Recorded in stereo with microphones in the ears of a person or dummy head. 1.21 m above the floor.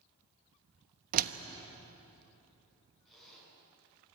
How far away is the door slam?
About 1.0 m.